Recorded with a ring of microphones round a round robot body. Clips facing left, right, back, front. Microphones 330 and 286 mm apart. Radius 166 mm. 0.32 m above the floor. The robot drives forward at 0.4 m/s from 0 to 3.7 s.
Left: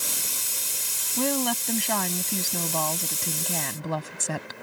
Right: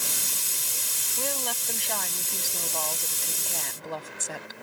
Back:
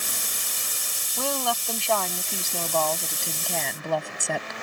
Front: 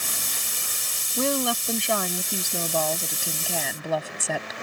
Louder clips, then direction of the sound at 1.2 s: Left 9 dB, front 4 dB; 65° left.